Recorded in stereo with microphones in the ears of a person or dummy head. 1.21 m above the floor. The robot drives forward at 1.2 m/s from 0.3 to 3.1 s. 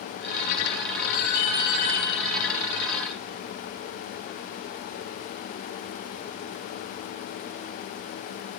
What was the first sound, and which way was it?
An alarm, 55° left (ahead or behind).